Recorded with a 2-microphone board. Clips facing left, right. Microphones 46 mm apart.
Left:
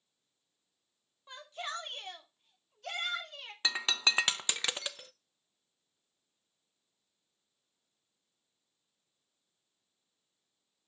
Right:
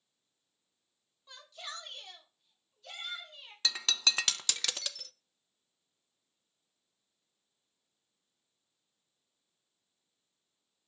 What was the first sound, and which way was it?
A shout, 30° left (ahead or behind).